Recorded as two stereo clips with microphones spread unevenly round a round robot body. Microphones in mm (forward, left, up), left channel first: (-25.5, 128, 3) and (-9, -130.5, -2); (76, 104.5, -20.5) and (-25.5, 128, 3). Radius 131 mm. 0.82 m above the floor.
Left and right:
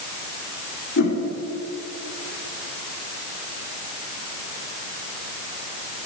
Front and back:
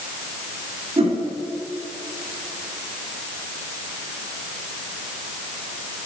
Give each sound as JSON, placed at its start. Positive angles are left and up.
{"t": 1.0, "sound": "a whoosh", "azimuth_deg": 130, "distance_m": 1.7}